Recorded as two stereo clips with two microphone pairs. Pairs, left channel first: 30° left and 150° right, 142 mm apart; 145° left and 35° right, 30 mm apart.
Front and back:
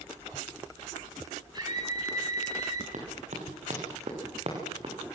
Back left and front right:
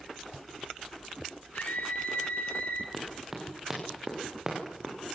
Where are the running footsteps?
120° right, 8 m; by 5.0 s 100° right, 6.5 m.